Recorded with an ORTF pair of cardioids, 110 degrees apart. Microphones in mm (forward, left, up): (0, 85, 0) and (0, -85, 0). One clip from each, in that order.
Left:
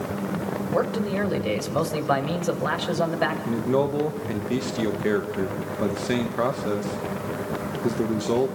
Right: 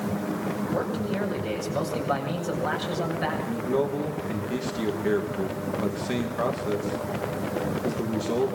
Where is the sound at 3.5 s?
25° left, 2 m.